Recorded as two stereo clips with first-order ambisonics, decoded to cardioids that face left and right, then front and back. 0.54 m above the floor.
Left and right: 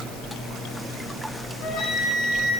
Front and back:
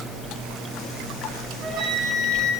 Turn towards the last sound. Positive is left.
turn(degrees=135)